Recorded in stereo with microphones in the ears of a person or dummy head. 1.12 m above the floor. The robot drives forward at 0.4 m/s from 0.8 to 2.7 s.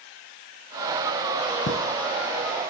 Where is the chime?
65° left (ahead or behind), 2.5 m.